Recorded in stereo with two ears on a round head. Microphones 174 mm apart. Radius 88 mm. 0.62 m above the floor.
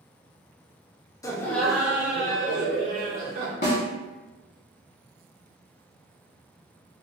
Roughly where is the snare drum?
Left.